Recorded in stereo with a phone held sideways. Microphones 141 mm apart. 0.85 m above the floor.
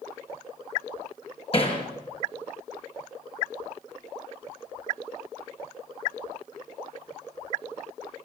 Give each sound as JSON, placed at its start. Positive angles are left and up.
{"t": 1.5, "sound": "hammering", "side_deg": 40, "distance_m": 4.5}